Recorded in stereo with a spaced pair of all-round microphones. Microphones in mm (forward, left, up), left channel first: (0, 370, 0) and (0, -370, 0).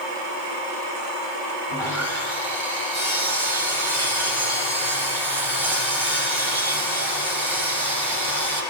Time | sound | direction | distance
1.7 | sawing | 40° right (ahead or behind) | 9.5 m